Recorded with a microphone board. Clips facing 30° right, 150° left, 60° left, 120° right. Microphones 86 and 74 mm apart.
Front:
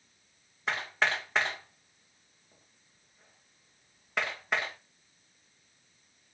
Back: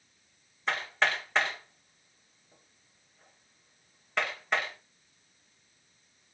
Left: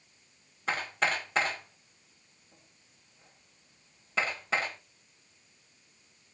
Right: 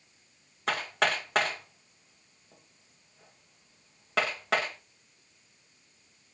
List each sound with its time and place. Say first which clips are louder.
0.7 s hammering: back 1 dB, right 2 dB; 115° right, 8 m